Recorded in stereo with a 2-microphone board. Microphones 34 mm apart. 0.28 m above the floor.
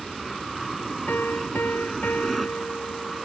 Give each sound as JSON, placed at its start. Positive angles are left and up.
{"t": 0.0, "sound": "an aircraft", "side_deg": 0}
{"t": 1.1, "sound": "a piano", "side_deg": 80}